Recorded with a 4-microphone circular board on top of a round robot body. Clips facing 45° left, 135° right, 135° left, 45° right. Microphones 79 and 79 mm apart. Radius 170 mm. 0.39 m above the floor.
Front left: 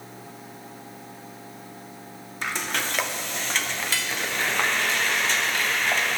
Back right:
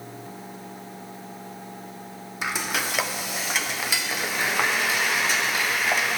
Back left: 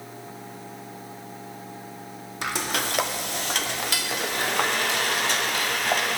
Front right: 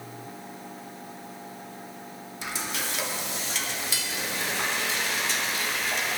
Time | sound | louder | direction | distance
2.4 | frying | back right 1 dB, back left 6 dB | 145° left | 0.7 m